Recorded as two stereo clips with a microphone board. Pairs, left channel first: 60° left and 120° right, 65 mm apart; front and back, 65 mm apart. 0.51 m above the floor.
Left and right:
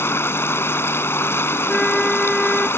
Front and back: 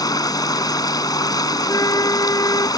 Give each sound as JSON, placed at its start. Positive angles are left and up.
{"t": 0.0, "sound": "running water", "azimuth_deg": 10}
{"t": 1.7, "sound": "a flute", "azimuth_deg": -25}